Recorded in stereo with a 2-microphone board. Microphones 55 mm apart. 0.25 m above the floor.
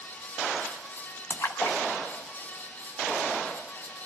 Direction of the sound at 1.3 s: 50° left (ahead or behind).